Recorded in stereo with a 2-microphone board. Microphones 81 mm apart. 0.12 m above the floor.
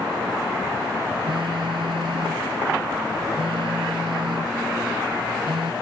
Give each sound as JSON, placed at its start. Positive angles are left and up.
{"t": 1.2, "sound": "a phone buzzing", "side_deg": -80}